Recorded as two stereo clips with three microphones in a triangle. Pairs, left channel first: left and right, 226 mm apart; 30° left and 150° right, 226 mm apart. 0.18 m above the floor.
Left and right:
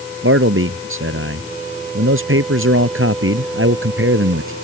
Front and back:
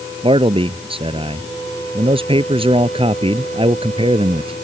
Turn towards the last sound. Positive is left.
turn(degrees=-85)